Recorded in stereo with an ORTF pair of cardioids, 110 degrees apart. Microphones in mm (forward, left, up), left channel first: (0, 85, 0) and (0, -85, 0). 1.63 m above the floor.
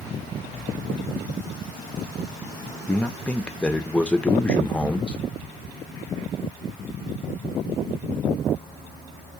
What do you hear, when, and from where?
2.9 s a man speaking: 5° left, 0.5 m